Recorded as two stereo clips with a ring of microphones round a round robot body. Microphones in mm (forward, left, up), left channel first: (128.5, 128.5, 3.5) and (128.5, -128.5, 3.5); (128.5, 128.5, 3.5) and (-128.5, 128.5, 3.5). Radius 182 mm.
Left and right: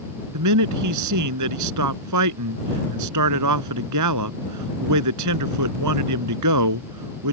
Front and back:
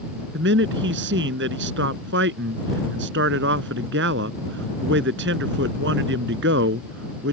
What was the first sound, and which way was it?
A man speaking, 120° right.